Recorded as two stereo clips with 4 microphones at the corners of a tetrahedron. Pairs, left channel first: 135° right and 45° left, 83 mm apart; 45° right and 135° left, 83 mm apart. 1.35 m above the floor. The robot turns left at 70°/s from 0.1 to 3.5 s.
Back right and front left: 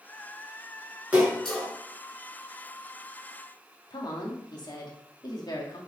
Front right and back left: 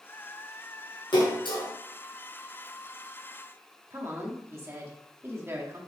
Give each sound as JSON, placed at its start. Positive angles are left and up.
{"t": 1.1, "sound": "a splash", "azimuth_deg": -25, "distance_m": 4.5}
{"t": 3.9, "sound": "a woman speaking", "azimuth_deg": -170, "distance_m": 2.5}